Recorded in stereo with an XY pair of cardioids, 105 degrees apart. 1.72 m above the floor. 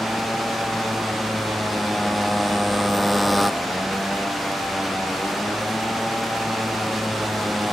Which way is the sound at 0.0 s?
5° left.